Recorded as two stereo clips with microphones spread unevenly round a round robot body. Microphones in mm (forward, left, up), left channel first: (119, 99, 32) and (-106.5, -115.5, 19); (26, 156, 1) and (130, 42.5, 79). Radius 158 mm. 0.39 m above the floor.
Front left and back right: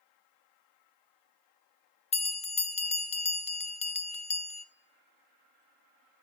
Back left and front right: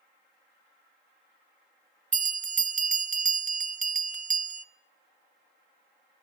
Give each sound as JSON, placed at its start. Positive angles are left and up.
{"t": 2.1, "sound": "a bell", "azimuth_deg": -5, "distance_m": 1.4}